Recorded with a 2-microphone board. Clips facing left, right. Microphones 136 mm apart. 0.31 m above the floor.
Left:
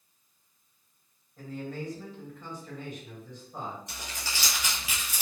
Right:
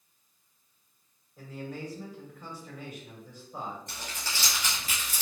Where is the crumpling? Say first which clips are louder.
Even; 10° left (ahead or behind), 1.5 m.